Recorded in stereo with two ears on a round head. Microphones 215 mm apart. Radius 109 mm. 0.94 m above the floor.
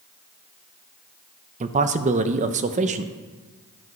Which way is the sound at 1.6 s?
30° right (ahead or behind).